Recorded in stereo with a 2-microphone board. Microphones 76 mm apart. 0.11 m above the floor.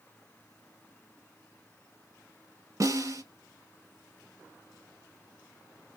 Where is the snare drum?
45° right (ahead or behind), 1.7 m.